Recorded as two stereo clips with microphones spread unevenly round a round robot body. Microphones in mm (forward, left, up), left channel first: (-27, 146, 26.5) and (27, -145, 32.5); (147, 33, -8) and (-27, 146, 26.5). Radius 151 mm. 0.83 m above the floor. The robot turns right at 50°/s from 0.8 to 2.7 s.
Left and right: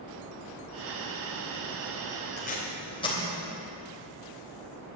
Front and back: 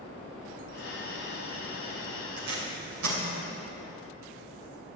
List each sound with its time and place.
2.4 s tape being pulled: 155° left, 3 m; by 3.2 s 175° left, 3 m